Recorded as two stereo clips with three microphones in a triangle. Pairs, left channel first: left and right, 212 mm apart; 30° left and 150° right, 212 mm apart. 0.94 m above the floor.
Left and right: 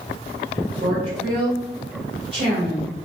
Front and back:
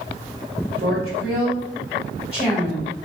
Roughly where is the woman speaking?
Behind right.